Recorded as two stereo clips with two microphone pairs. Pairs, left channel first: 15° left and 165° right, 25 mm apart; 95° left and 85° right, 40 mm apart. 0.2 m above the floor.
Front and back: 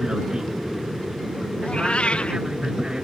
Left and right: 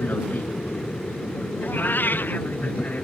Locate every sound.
0.0 s an aircraft: 130° left; by 3.0 s 140° left
1.6 s a cat meowing: 60° left